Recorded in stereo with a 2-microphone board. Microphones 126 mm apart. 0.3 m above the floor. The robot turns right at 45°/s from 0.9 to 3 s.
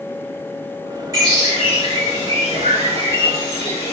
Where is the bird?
150° right, 2.5 m; by 3.9 s 65° right, 2.5 m.